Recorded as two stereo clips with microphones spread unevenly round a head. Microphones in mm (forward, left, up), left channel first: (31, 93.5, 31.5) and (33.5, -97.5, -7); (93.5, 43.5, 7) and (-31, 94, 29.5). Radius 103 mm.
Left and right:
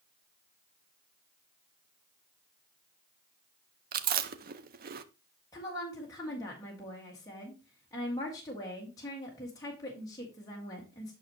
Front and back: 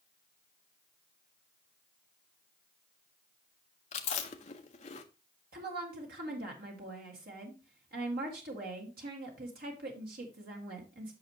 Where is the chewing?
60° right, 0.6 m.